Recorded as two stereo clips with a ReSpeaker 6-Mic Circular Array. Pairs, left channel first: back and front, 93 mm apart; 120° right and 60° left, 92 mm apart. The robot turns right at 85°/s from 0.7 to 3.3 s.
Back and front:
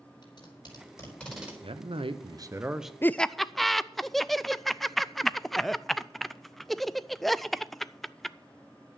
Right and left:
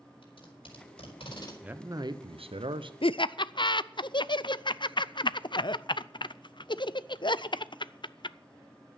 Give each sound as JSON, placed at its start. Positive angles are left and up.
{"t": 0.2, "sound": "tape being pulled", "azimuth_deg": -145, "distance_m": 4.0}
{"t": 1.6, "sound": "a man speaking", "azimuth_deg": -20, "distance_m": 0.9}
{"t": 3.0, "sound": "laughter", "azimuth_deg": -115, "distance_m": 0.5}